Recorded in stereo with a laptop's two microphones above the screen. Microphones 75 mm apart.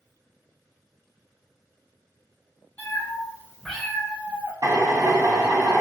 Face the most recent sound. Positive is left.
turn(degrees=-45)  # may be behind; listen again after turning